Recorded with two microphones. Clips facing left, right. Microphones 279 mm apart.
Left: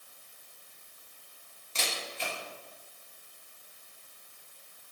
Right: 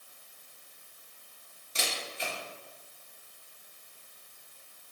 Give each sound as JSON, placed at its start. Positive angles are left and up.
{"t": 1.8, "sound": "a camera shutter", "side_deg": -15, "distance_m": 1.6}